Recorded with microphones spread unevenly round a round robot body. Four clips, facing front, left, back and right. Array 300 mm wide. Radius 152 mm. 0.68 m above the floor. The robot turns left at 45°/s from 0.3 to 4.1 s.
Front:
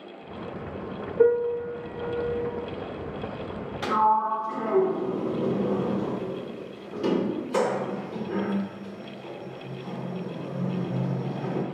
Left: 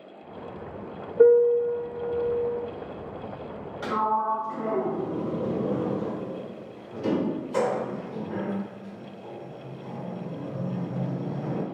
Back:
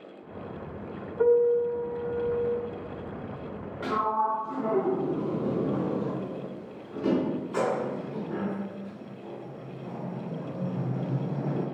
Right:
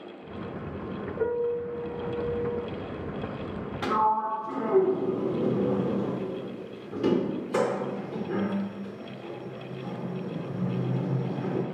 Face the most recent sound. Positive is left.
turn(degrees=-80)